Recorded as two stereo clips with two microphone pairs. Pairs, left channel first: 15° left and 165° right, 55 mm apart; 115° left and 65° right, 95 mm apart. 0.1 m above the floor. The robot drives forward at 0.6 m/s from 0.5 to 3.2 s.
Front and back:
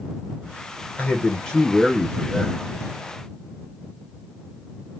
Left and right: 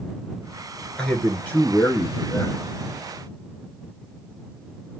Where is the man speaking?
45° left, 1.6 m; by 2.6 s 130° left, 1.6 m.